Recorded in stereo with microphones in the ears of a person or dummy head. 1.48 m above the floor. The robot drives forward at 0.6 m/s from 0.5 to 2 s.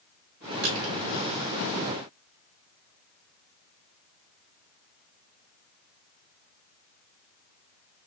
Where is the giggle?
No giggle in this recording.